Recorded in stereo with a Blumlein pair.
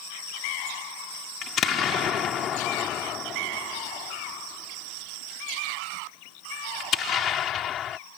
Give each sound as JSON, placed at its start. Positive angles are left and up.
{"t": 1.4, "sound": "an explosion", "azimuth_deg": 30}